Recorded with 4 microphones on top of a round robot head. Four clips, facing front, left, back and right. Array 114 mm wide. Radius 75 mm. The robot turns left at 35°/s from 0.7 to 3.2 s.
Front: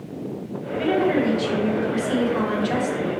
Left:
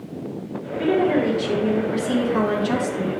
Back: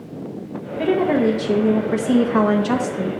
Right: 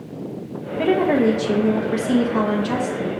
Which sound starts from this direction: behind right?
A woman speaking, at 0.8 s.